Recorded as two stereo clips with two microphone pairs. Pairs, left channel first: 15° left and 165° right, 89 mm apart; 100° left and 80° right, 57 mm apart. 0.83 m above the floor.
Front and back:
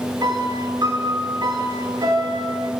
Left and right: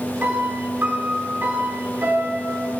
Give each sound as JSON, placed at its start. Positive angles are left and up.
{"t": 0.2, "sound": "a piano", "azimuth_deg": -130, "distance_m": 1.1}